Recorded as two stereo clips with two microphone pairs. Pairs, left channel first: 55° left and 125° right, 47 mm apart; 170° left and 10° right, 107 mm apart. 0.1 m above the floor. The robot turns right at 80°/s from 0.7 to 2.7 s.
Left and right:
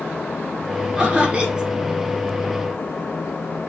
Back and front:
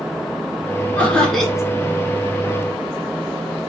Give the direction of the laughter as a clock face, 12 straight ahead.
5 o'clock.